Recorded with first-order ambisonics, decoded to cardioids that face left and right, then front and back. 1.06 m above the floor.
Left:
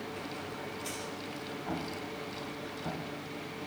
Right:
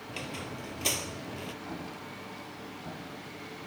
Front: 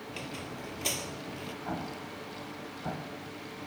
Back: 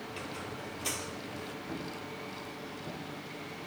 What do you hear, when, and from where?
0.1 s a squeak: 65° right, 1.8 m
1.6 s an explosion: 15° left, 2.5 m